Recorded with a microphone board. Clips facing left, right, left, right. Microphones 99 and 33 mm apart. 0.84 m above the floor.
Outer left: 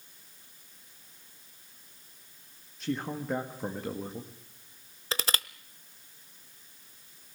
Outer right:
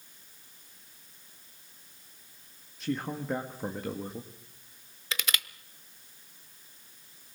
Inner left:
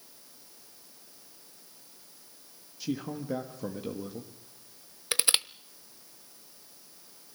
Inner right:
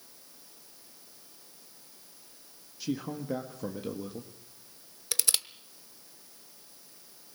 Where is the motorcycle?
I don't hear a motorcycle.